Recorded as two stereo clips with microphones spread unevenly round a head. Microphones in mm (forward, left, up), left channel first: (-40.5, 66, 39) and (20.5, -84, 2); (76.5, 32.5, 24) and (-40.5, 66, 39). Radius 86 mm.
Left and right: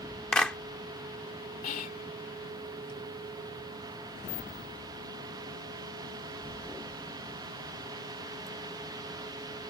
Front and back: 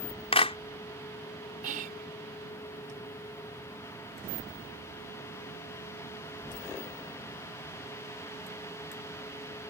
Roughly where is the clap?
Ahead left.